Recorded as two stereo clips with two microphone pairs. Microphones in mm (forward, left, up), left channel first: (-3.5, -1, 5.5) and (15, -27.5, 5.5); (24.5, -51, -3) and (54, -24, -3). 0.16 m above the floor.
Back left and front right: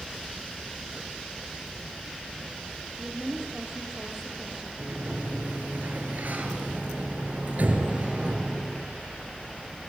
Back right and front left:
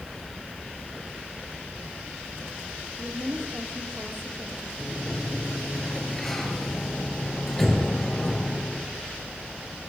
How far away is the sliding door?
About 3.5 m.